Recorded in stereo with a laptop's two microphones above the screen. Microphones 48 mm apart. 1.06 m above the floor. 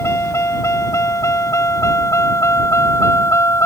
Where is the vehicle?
70° left (ahead or behind).